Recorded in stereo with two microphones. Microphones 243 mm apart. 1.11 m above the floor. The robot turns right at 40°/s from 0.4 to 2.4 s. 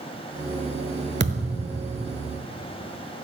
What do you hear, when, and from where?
1.2 s a thud: 45° right (ahead or behind), 1.1 m; by 1.9 s 40° right (ahead or behind), 1.1 m